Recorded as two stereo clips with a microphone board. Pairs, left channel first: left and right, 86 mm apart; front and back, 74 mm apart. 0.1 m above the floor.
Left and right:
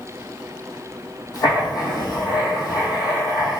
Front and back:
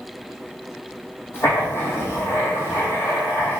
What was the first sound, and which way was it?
Writing, 55° left.